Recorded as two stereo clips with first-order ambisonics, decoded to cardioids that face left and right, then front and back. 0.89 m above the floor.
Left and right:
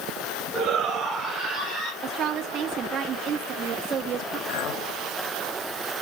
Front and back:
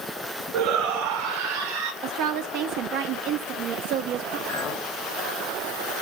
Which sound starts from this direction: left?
A clink, at 4.5 s.